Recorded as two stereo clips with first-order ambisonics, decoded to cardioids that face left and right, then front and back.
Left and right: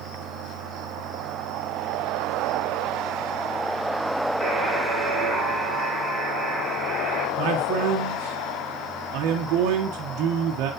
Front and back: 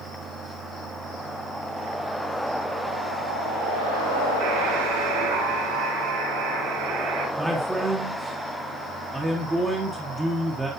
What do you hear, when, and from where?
4.4 s a buzzer: 175° left, 4 m
7.4 s a man speaking: 100° right, 1.0 m